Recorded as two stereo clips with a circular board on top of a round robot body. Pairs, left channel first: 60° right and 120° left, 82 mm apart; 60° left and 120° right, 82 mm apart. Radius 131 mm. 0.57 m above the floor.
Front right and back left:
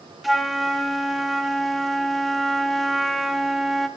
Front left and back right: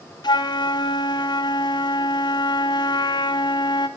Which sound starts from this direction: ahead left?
A flute, at 0.2 s.